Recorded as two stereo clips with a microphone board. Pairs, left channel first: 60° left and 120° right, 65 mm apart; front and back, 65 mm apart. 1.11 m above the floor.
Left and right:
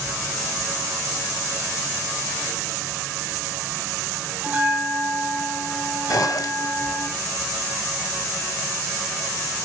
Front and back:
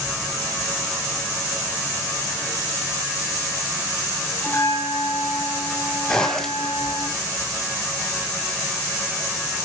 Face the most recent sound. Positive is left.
turn(degrees=80)